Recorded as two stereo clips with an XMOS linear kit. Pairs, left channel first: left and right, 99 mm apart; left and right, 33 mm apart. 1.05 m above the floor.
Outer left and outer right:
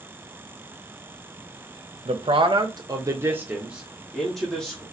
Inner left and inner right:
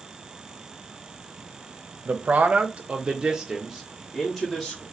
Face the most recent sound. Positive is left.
turn(degrees=10)  # may be behind; listen again after turning